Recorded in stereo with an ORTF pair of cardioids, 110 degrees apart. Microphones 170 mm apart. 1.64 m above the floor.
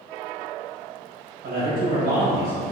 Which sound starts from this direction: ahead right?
A man speaking, at 1.4 s.